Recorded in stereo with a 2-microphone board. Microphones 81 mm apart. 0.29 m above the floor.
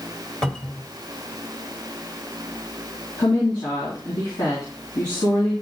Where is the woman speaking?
60° left (ahead or behind), 3 m.